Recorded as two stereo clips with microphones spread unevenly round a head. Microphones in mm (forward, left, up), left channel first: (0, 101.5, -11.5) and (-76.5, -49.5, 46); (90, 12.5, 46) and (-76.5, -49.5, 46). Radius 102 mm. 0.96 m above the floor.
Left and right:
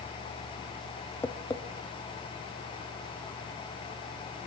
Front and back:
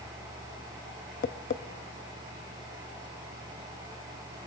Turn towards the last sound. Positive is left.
turn(degrees=-25)